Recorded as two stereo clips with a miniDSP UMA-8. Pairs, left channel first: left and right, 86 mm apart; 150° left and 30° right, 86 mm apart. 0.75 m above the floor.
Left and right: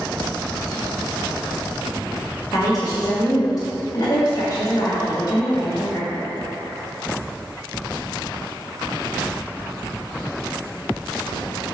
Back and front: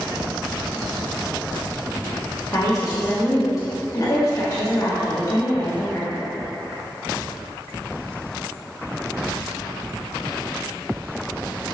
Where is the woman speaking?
115° left, 1.6 m.